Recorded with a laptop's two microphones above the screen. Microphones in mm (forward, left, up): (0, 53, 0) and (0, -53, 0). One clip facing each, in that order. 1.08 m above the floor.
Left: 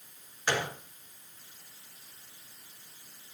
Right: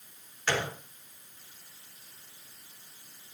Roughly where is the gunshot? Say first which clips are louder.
Even; centre.